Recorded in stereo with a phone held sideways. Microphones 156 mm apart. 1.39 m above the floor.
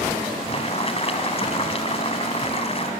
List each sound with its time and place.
0.5 s boiling: 40° left (ahead or behind), 2.0 m